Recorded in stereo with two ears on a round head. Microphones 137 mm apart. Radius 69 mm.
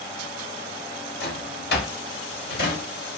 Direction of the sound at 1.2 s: 75° left (ahead or behind).